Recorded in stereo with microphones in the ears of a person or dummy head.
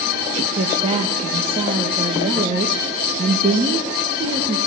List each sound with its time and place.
0.6 s a woman speaking: 40° right (ahead or behind), 1.6 m